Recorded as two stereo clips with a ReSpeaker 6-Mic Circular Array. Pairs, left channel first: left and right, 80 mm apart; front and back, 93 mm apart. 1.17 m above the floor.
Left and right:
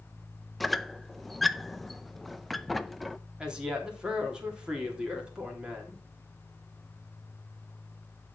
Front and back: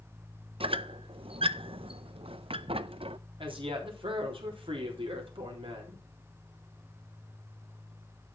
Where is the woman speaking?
170° right, 3.5 m.